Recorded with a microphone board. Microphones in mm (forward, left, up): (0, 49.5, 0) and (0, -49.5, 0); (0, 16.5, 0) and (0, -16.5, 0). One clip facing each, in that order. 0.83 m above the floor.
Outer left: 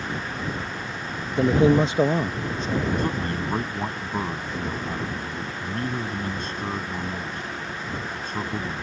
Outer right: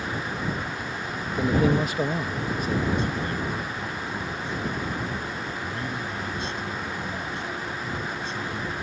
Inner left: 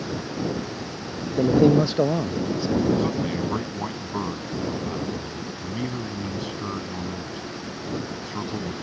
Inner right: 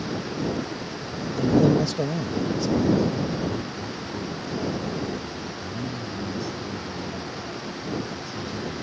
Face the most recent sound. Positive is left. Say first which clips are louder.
# outer left 2 dB, even
turn(degrees=50)  # may be behind; listen again after turning